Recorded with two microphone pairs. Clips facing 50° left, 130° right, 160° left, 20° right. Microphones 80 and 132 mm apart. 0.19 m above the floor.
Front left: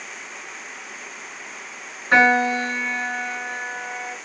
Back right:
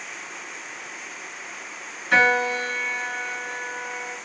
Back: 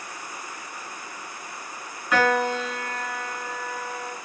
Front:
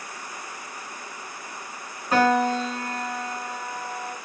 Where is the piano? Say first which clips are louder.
Front left 3 dB, front 2 dB; 5° left, 1.9 m.